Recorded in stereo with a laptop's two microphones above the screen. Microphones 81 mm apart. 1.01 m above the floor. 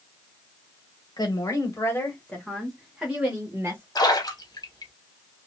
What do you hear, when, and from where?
1.2 s a woman speaking: 50° left (ahead or behind), 1.1 m; by 3.9 s 30° right (ahead or behind), 1.3 m
4.0 s a splash: 50° left (ahead or behind), 1.0 m